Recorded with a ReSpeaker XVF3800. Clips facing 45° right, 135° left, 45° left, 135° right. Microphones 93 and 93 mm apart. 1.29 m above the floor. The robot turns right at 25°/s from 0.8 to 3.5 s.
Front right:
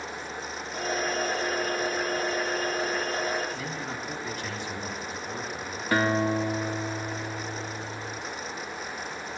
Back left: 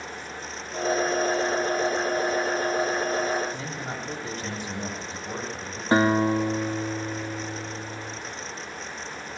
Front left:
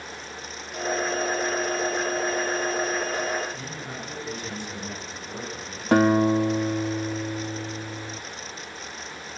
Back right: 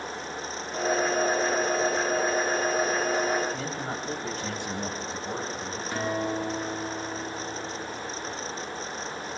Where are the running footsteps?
No running footsteps in this recording.